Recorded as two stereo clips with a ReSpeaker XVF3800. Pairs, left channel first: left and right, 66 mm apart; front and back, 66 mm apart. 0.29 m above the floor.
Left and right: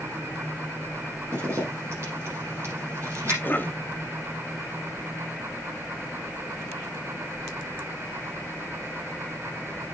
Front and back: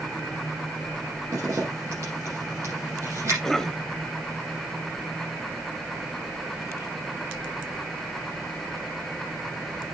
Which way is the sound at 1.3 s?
140° right.